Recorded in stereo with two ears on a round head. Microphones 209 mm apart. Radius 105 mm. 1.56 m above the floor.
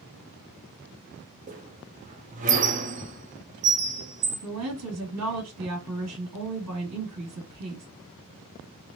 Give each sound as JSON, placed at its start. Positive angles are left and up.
{"t": 1.5, "sound": "a squeak", "side_deg": -35, "distance_m": 0.7}
{"t": 4.4, "sound": "a woman speaking", "side_deg": -80, "distance_m": 2.5}